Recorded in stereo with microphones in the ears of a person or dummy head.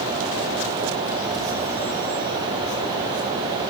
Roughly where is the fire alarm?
I don't hear a fire alarm.